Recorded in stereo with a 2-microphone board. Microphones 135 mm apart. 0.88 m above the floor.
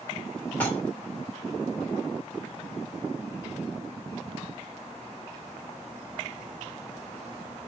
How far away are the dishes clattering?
About 4 m.